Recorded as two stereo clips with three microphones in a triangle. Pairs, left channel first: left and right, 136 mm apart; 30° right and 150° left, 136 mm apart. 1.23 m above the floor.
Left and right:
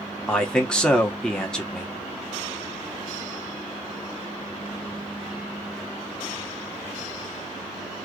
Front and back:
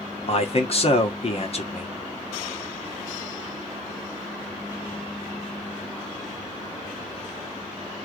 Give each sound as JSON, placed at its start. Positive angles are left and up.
{"t": 0.3, "sound": "a man speaking", "azimuth_deg": 5, "distance_m": 1.3}